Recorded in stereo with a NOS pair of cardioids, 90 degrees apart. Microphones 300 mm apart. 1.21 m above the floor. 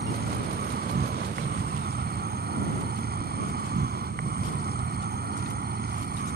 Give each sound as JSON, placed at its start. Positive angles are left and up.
{"t": 0.0, "sound": "an insect", "azimuth_deg": -35}